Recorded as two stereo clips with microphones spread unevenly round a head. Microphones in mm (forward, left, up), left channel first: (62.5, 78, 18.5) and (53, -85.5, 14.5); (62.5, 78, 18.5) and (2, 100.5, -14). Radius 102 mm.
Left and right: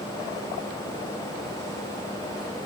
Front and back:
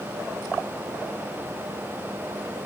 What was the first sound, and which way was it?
Only background noise.